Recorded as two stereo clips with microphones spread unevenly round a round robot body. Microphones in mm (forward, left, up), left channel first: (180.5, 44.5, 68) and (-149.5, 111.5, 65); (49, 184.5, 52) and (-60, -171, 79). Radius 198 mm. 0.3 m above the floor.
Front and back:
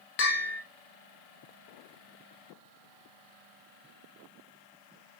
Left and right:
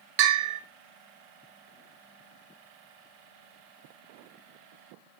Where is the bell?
75° right, 1.3 m.